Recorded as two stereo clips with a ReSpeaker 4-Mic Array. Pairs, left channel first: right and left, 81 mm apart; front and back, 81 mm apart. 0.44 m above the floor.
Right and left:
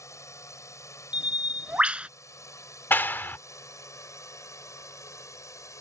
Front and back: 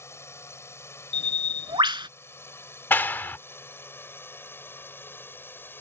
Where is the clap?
45° right.